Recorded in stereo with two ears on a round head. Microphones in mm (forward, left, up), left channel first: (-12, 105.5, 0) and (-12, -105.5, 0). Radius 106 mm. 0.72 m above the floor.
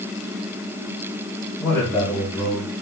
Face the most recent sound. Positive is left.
turn(degrees=5)  # may be behind; listen again after turning